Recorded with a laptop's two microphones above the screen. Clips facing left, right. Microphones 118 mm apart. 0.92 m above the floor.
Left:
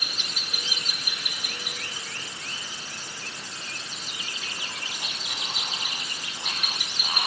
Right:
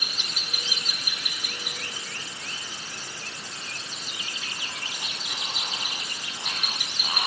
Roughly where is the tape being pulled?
I don't hear tape being pulled.